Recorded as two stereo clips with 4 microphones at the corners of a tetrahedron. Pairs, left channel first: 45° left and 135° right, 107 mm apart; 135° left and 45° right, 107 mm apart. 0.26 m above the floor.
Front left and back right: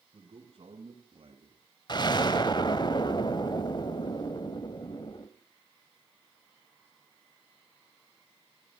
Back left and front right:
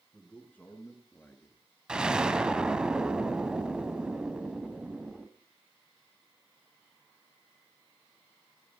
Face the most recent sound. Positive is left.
turn(degrees=35)